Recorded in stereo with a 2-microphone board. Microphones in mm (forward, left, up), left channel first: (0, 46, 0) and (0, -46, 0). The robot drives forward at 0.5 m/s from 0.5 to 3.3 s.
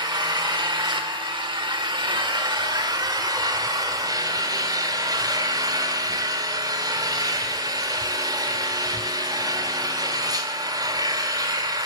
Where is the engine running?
55° right (ahead or behind), 1.4 m; by 11.9 s 50° right (ahead or behind), 1.6 m.